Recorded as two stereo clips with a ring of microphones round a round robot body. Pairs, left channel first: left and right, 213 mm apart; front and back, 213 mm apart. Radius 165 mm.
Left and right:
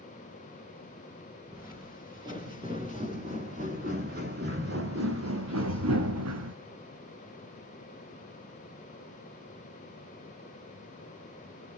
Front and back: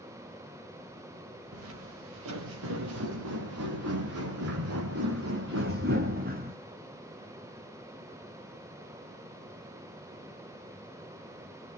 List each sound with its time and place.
1.5 s footsteps: 170° right, 5 m; by 6.5 s 110° right, 2 m